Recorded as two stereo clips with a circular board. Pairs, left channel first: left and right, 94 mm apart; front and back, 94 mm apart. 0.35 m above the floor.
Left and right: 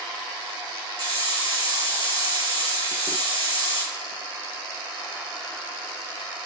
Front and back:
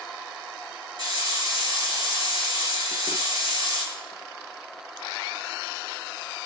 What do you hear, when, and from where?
1.0 s a hiss: 135° right, 5 m